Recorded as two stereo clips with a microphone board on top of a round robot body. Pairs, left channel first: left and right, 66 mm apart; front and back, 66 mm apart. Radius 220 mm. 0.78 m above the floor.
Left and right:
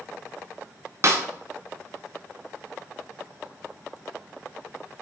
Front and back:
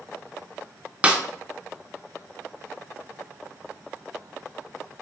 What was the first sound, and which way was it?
A snare drum, 110° right.